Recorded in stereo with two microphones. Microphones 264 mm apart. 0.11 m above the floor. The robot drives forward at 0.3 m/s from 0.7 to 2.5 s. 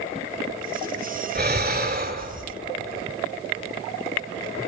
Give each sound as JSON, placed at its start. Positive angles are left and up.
{"t": 1.4, "sound": "breathing", "side_deg": -35, "distance_m": 2.0}